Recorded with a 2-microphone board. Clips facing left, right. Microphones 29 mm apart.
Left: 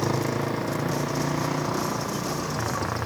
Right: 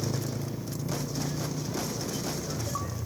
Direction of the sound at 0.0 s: 65° left (ahead or behind).